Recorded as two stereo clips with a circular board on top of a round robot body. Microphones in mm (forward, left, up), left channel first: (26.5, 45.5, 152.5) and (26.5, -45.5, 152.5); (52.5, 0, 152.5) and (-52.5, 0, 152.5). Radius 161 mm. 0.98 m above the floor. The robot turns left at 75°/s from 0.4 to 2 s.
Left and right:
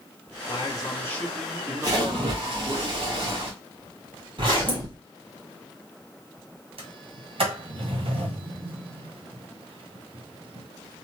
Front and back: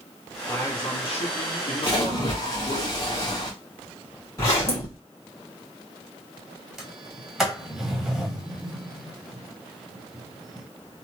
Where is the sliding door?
95° right, 1.2 m.